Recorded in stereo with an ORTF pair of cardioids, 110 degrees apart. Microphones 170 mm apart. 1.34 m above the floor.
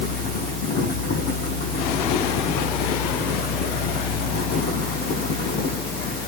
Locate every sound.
0.0 s a fan: 70° left, 5.5 m